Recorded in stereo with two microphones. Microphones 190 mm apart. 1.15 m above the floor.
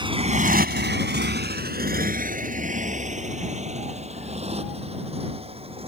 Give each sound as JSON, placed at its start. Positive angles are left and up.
{"t": 0.0, "sound": "a motorcycle", "side_deg": -25}